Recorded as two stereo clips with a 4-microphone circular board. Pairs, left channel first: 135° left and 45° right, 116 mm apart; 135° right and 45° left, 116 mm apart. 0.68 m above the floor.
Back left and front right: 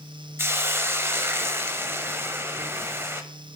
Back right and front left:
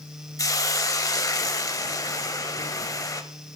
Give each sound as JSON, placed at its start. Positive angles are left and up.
{"t": 0.4, "sound": "a hiss", "azimuth_deg": -100, "distance_m": 0.5}